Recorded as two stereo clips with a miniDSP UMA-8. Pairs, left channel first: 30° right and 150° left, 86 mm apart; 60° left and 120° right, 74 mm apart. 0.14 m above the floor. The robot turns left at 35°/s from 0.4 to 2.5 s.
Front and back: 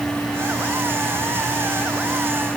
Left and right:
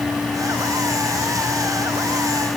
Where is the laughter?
No laughter in this recording.